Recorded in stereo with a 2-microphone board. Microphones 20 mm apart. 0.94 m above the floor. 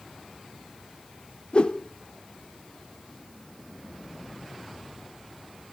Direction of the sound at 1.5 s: 50° left (ahead or behind).